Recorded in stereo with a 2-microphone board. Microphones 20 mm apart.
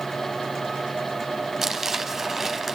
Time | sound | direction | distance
1.6 | crumpling | 20° right (ahead or behind) | 1.5 m